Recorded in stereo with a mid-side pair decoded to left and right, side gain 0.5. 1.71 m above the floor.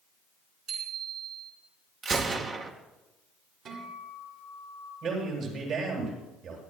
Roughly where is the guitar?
Ahead right.